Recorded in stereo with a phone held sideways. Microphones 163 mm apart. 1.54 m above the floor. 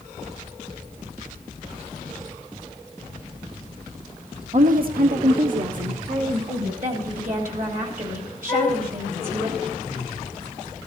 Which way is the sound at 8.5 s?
15° left (ahead or behind).